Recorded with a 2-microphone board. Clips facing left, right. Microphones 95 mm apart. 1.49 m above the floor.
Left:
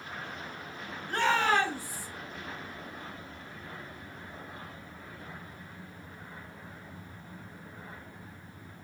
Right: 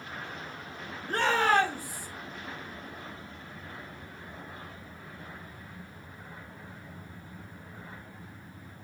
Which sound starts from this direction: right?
A shout, at 1.1 s.